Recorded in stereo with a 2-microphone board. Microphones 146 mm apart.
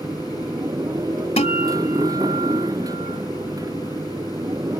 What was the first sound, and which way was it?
A motorcycle, 25° right (ahead or behind).